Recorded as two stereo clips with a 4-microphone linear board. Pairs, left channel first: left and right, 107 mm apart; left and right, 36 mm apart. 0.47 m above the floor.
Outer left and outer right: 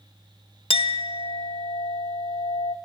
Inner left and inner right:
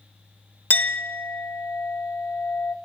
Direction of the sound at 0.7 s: 65° left (ahead or behind).